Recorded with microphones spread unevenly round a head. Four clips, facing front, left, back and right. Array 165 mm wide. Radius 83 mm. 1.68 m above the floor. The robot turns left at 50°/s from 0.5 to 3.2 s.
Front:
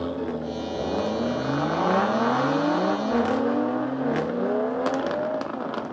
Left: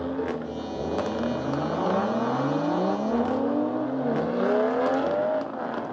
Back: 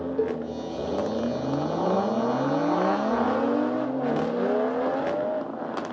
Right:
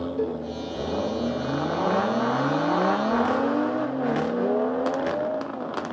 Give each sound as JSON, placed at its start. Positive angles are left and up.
{"t": 0.2, "sound": "a cowbell", "azimuth_deg": -145, "distance_m": 1.7}